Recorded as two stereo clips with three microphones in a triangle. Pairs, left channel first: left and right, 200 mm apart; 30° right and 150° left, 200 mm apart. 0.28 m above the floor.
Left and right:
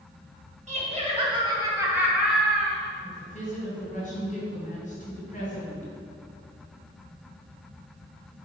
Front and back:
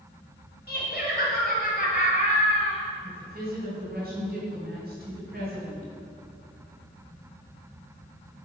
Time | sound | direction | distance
0.7 | laughter | 45° right | 2.5 m
3.0 | a woman speaking | 130° left | 2.5 m